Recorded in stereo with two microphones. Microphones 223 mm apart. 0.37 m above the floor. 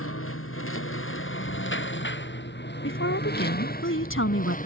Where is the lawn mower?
75° left (ahead or behind); by 4.7 s 35° left (ahead or behind).